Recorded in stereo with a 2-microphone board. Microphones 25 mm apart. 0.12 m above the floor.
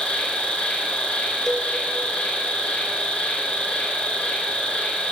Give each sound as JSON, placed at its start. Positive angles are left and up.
{"t": 0.0, "sound": "an insect", "side_deg": 65, "distance_m": 3.5}
{"t": 1.5, "sound": "a cowbell", "side_deg": 25, "distance_m": 1.9}